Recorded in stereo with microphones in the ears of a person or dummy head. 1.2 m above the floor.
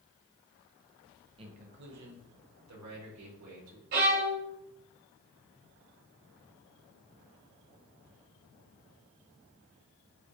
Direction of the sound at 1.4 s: 25° right (ahead or behind).